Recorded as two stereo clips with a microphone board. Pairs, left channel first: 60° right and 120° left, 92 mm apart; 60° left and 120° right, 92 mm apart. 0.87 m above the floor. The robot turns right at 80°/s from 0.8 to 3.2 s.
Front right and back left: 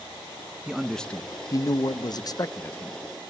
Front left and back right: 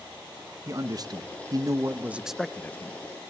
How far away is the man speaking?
About 0.6 m.